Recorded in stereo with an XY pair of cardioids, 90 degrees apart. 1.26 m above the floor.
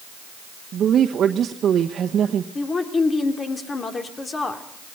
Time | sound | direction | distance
0.7 | a woman speaking | 65° right | 1.1 m
2.5 | a woman speaking | 40° left | 3 m